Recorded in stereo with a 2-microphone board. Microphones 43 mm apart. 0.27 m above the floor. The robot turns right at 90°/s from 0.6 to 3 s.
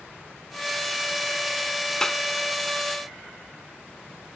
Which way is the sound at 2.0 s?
10° left (ahead or behind).